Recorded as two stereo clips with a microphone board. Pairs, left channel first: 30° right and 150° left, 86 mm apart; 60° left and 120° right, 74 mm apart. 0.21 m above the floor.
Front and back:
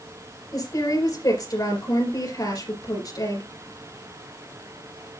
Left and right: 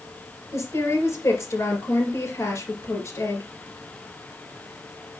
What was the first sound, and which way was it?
A woman speaking, 10° left.